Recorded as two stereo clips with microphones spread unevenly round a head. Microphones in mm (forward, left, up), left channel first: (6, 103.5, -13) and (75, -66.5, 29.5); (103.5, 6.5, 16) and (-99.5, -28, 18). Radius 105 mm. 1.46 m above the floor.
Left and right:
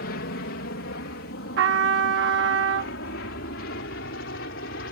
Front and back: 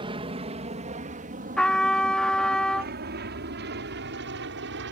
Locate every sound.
0.0 s an aircraft: 125° left; by 4.9 s 155° left
1.6 s a trumpet: 75° right